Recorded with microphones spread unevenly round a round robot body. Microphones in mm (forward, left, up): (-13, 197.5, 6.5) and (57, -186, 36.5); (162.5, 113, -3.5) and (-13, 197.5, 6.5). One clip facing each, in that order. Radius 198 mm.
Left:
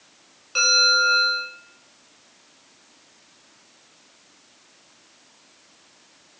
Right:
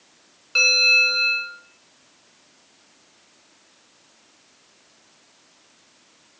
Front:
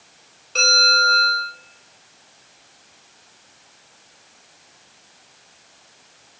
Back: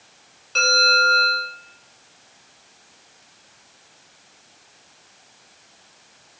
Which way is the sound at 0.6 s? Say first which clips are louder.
Left 1 dB, back 2 dB; 160° right.